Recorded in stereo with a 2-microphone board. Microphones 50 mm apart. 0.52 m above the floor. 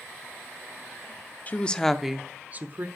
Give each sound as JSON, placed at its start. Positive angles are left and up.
{"t": 1.5, "sound": "a woman speaking", "side_deg": 30, "distance_m": 0.8}